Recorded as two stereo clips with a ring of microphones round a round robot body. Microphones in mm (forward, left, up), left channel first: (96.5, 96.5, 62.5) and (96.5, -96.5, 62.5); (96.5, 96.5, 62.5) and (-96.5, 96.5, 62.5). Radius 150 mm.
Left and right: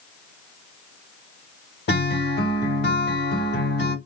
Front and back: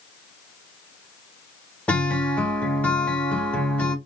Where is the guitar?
85° left, 1.3 m.